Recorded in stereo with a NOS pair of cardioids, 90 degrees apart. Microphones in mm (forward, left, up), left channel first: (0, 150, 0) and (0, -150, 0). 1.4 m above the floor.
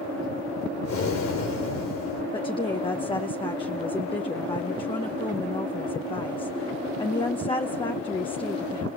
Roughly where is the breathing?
Ahead left.